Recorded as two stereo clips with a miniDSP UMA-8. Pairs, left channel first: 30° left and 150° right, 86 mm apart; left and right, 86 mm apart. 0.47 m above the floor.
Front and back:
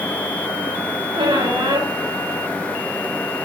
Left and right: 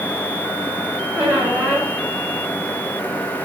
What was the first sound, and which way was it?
A squeak, 165° right.